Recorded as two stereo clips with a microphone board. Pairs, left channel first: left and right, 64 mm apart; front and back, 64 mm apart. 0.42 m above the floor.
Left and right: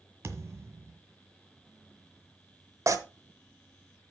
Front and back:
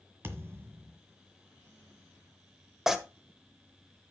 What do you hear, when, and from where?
0.2 s a thud: 135° right, 1.5 m
2.9 s tearing paper: 95° right, 1.1 m